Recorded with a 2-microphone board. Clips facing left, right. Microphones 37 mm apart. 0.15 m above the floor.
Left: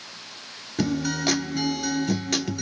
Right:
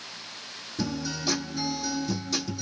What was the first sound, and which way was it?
A guitar, 65° left (ahead or behind).